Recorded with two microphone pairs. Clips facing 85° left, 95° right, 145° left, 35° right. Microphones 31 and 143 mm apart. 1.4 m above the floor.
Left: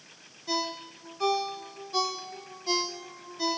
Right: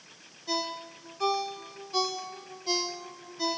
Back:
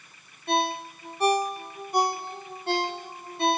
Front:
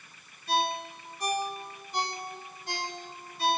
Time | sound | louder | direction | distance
0.5 | a ringtone | left 1 dB, back 3 dB | 170° left | 2.0 m